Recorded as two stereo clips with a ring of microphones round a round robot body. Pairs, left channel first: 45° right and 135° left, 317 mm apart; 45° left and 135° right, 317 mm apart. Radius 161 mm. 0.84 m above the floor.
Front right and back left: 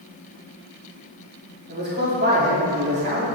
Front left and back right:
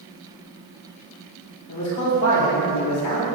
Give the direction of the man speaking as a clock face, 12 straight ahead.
9 o'clock.